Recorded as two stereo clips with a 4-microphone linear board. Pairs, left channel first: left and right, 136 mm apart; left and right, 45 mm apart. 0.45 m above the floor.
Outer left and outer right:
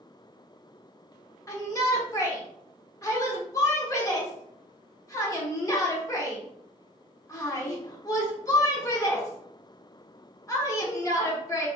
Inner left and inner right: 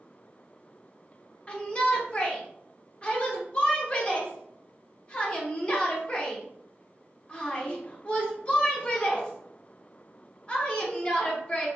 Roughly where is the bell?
I don't hear a bell.